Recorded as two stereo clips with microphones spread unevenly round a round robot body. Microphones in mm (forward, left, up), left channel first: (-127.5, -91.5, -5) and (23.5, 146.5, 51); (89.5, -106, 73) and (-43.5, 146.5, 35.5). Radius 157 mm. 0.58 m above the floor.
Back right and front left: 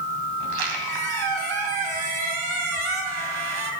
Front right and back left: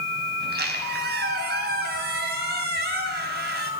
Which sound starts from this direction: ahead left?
A squeak, at 0.4 s.